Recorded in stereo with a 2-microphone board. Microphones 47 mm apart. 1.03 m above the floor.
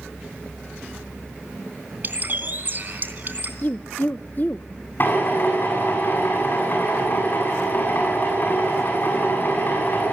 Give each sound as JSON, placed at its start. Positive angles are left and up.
{"t": 2.0, "sound": "a bird", "side_deg": -45, "distance_m": 3.0}
{"t": 3.6, "sound": "a woman speaking", "side_deg": 40, "distance_m": 0.6}
{"t": 5.0, "sound": "a drill", "side_deg": 45, "distance_m": 8.5}